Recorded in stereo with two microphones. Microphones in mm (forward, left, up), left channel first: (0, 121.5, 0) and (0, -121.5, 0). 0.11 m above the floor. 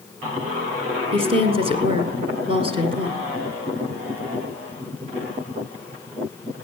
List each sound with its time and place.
1.1 s a woman speaking: 25° right (ahead or behind), 1.5 m